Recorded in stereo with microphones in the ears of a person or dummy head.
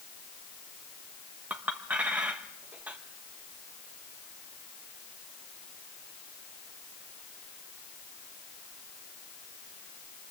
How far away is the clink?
About 1.1 m.